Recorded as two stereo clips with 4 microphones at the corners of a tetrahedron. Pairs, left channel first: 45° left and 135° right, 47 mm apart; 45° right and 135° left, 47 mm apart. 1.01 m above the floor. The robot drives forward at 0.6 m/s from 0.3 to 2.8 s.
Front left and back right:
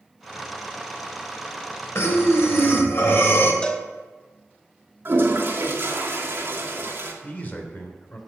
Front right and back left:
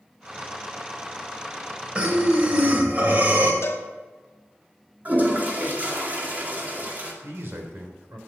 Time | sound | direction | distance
1.9 | breathing | 70° left | 2.5 m
3.6 | a cowbell | 25° right | 1.3 m
5.0 | a toilet flushing | 175° right | 2 m
7.2 | a man speaking | 100° left | 3 m